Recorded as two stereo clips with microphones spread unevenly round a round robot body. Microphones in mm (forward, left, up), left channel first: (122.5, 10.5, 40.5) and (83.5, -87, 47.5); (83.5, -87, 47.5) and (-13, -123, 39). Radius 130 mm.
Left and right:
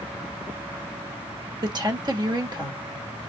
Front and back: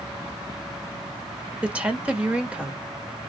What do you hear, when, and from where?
1.6 s a woman speaking: 95° right, 1.6 m